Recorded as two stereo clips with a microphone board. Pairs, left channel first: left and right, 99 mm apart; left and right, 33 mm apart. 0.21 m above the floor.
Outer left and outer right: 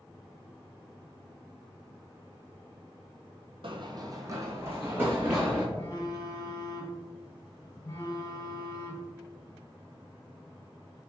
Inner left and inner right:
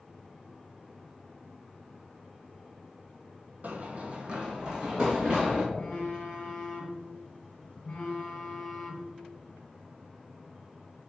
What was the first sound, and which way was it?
Running footsteps, 60° right (ahead or behind).